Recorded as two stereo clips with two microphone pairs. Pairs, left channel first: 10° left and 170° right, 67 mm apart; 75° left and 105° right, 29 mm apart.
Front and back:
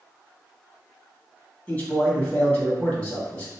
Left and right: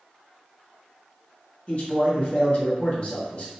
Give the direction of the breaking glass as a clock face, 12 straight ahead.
No breaking glass in this recording.